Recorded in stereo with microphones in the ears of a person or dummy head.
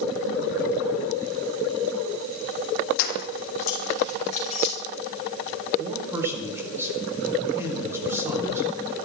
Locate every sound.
3.0 s keys jangling: 55° left (ahead or behind), 2.5 m; by 4.8 s 45° left (ahead or behind), 4 m
5.8 s a man speaking: 10° right (ahead or behind), 5.5 m